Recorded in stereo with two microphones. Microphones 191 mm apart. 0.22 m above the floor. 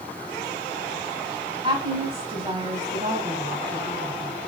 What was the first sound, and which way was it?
A woman speaking, 30° right (ahead or behind).